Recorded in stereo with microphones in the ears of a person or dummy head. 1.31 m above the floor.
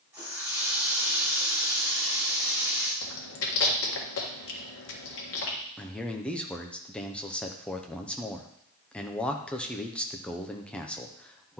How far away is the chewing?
About 1.5 m.